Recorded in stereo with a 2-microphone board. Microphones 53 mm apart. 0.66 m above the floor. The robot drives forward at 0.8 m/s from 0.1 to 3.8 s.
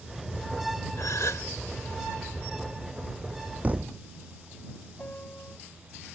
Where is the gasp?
70° left (ahead or behind); by 1.5 s 85° left.